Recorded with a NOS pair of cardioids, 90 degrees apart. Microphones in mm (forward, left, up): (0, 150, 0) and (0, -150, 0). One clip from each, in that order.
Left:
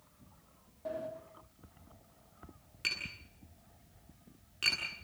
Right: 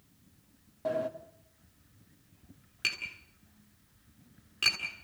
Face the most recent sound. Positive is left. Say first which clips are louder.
# right 3 dB
turn(degrees=-25)